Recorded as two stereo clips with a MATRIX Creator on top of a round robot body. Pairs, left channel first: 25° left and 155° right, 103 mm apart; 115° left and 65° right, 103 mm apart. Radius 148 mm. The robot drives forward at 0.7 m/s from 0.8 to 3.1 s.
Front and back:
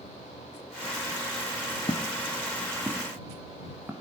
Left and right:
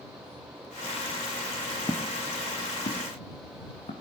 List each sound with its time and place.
1.9 s footsteps: 60° left, 0.8 m; by 3.9 s 130° left, 3 m